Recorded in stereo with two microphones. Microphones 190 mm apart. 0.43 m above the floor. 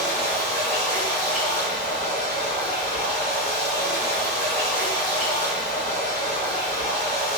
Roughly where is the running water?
Left.